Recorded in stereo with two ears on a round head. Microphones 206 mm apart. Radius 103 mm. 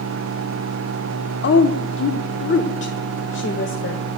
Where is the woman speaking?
50° left (ahead or behind), 0.9 m.